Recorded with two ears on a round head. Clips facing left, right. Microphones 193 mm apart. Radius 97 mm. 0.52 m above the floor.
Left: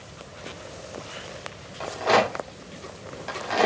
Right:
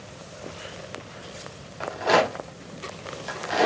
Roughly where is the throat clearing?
I don't hear throat clearing.